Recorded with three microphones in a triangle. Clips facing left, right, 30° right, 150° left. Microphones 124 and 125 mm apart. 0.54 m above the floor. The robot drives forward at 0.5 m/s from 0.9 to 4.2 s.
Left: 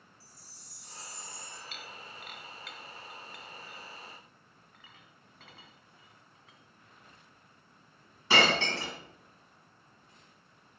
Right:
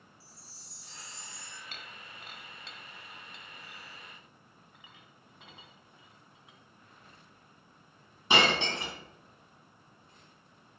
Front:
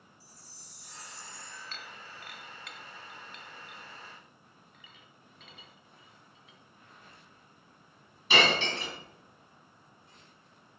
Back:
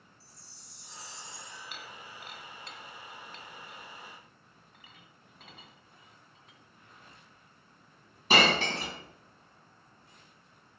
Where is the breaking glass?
130° right, 0.8 m; by 8.9 s 160° right, 1.9 m.